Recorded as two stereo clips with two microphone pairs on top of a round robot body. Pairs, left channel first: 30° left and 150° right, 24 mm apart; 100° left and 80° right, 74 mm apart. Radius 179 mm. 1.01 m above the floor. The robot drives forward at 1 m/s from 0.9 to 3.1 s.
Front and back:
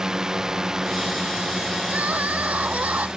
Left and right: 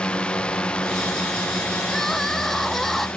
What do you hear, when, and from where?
0.0 s a drone: 160° left
1.9 s crying: 175° right